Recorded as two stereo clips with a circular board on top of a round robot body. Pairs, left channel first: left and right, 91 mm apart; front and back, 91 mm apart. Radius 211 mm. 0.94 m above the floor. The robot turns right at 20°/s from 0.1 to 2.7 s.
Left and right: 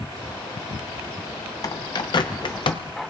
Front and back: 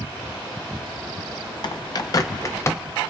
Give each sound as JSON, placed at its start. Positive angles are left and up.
{"t": 1.6, "sound": "a bird", "azimuth_deg": 40, "distance_m": 0.6}